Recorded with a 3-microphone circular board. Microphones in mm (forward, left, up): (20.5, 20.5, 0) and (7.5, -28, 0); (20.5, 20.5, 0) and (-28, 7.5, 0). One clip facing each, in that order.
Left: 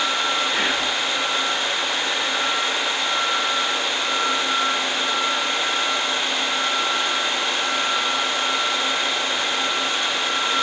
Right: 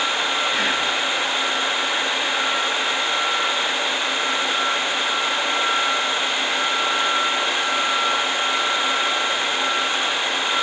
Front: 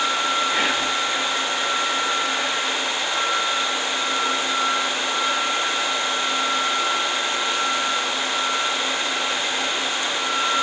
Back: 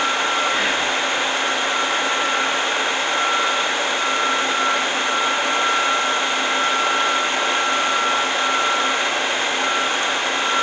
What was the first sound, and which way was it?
Whispering, 15° left.